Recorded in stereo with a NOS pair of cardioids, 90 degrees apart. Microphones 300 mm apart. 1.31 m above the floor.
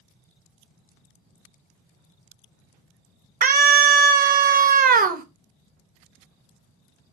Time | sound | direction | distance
3.4 | a scream | 30° right | 0.6 m